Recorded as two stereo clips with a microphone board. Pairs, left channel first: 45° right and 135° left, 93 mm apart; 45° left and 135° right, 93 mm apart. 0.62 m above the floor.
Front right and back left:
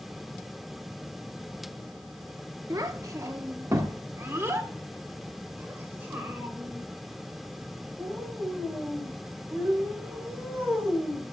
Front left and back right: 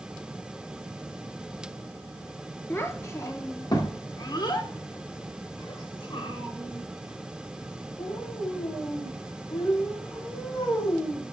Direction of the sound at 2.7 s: 100° left.